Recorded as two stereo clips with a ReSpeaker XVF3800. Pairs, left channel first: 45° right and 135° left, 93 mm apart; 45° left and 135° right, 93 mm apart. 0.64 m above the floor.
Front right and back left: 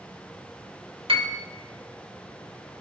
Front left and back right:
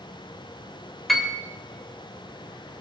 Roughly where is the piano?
Behind left.